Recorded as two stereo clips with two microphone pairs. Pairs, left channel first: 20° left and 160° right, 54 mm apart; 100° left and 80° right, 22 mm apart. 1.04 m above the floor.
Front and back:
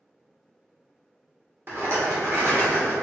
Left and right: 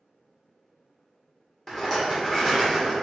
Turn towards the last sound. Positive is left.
turn(degrees=175)